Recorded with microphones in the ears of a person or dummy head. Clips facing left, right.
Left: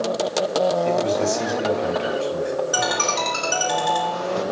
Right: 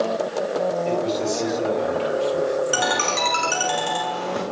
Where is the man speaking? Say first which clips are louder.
Left 2 dB; 30° left (ahead or behind), 4.5 m.